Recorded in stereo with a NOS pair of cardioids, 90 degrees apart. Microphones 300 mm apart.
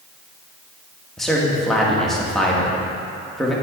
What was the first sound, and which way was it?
A man speaking, straight ahead.